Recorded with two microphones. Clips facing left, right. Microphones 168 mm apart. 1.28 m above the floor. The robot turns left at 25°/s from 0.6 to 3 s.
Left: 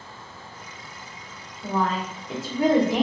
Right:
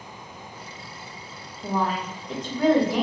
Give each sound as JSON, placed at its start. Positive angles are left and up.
{"t": 1.6, "sound": "a woman speaking", "azimuth_deg": -165, "distance_m": 0.8}